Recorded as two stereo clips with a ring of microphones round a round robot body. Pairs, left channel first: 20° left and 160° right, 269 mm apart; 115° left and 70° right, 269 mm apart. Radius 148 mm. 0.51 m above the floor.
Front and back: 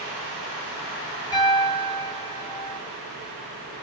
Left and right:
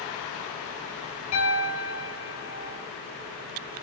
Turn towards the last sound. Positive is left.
turn(degrees=95)